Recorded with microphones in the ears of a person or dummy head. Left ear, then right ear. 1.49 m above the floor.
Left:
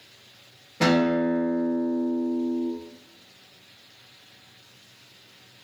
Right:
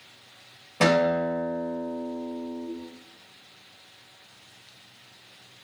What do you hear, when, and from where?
0.8 s a guitar: 25° right (ahead or behind), 1.1 m